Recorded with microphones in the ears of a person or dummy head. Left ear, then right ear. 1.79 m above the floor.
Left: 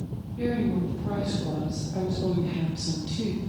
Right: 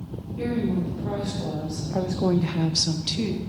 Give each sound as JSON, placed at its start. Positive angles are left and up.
{"t": 0.4, "sound": "a woman speaking", "side_deg": -15, "distance_m": 2.0}